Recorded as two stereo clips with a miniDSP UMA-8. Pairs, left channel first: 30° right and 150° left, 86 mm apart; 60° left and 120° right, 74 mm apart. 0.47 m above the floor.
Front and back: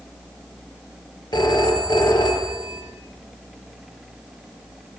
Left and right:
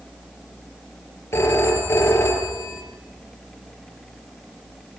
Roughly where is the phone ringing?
Ahead.